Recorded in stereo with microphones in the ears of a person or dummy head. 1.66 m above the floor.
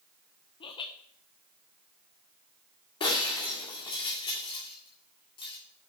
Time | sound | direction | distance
0.6 | laughter | 25° left (ahead or behind) | 1.0 m
3.0 | breaking glass | 25° left (ahead or behind) | 1.9 m